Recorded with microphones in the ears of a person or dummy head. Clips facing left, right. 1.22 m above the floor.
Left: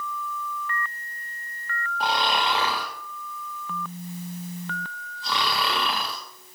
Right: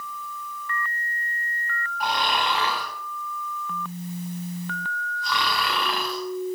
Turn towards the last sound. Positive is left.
turn(degrees=30)  # may be behind; listen again after turning